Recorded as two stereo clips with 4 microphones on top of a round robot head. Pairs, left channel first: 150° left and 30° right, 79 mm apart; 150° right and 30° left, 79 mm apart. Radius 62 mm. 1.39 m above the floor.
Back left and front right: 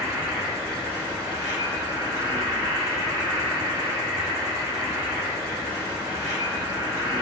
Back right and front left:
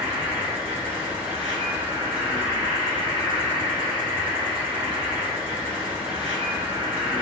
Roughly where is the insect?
Ahead.